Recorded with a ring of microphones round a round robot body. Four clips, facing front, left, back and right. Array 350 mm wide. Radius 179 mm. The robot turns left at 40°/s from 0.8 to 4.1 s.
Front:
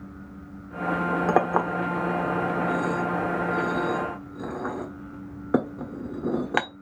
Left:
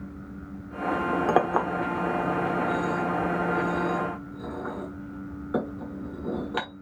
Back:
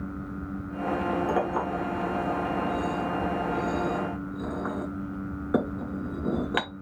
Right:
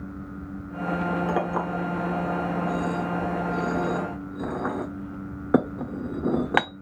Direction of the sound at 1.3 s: 40° left.